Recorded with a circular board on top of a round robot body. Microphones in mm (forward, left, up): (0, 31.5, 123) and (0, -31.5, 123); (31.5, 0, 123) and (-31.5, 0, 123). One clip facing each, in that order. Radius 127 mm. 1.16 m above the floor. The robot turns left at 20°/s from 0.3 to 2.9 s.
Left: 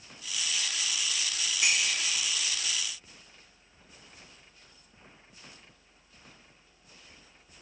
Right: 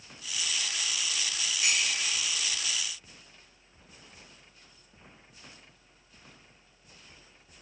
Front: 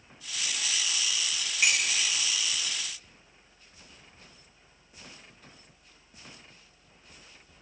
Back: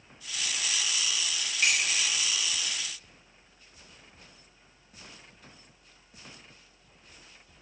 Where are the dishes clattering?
75° left, 1.7 m; by 2.1 s 65° left, 1.7 m.